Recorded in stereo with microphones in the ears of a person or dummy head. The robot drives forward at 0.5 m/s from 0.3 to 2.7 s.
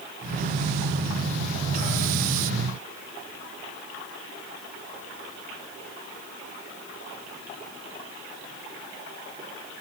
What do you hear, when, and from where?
Only background noise.